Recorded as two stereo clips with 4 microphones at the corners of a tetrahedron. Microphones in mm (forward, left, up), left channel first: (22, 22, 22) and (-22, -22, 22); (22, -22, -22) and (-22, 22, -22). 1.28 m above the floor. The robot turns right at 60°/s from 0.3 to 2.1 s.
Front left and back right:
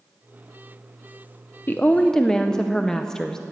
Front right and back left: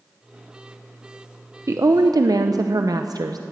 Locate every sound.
1.7 s a woman speaking: 100° left, 0.6 m; by 3.4 s 125° left, 0.6 m